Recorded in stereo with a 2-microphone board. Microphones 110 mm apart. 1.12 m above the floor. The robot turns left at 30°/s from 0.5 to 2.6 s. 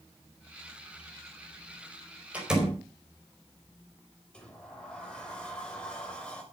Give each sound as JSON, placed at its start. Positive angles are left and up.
{"t": 2.3, "sound": "a door slam", "side_deg": -15, "distance_m": 4.5}
{"t": 4.3, "sound": "a sliding door", "side_deg": 10, "distance_m": 3.5}